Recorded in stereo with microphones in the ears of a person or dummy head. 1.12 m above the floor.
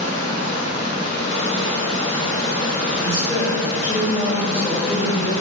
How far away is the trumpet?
No trumpet in this recording.